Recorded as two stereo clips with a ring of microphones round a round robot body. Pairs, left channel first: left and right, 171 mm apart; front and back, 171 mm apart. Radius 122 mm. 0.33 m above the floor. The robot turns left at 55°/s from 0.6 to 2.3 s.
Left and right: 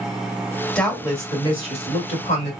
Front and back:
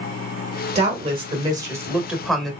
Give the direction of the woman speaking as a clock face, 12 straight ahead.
6 o'clock.